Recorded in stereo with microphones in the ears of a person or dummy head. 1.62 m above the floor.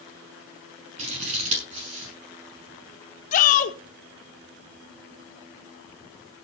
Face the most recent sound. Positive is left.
turn(degrees=45)  # may be behind; listen again after turning